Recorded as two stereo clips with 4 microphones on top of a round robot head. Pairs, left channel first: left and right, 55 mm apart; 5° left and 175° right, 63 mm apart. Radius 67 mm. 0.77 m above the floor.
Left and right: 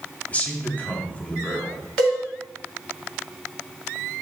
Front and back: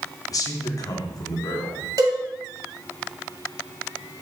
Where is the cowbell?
165° left, 2.0 m.